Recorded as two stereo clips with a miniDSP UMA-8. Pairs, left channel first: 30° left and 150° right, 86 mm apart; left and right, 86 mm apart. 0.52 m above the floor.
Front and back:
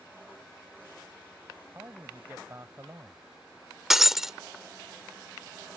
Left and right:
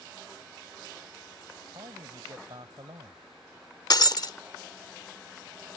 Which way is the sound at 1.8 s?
95° right.